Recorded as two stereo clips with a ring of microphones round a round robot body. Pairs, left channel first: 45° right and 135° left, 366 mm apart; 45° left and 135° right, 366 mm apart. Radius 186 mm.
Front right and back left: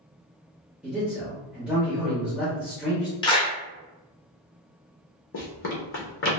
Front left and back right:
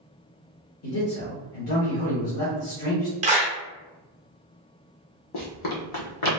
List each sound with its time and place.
0.8 s a man speaking: 50° left, 0.9 m
3.2 s a clap: 100° right, 0.6 m
5.3 s running footsteps: 15° left, 0.9 m